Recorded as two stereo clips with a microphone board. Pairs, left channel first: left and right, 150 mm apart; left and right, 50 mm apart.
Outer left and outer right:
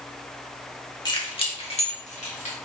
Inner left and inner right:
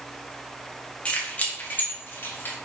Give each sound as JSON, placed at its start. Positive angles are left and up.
{"t": 1.1, "sound": "keys jangling", "side_deg": 30, "distance_m": 1.6}